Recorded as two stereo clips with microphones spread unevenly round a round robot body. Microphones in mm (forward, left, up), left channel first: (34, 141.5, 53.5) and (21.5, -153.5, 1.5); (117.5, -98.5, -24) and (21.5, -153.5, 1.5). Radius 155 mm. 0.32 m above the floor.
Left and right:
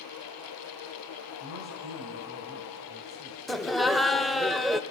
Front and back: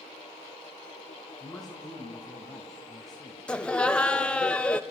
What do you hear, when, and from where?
1.4 s a man speaking: 55° right, 4 m
3.5 s laughter: 20° right, 1.0 m